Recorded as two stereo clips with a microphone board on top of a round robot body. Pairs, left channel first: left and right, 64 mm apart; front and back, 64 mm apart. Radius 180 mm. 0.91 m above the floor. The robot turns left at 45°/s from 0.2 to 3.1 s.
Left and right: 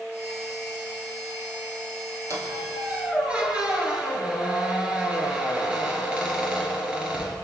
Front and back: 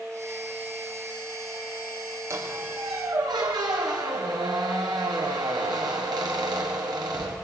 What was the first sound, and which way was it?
A squeak, 130° right.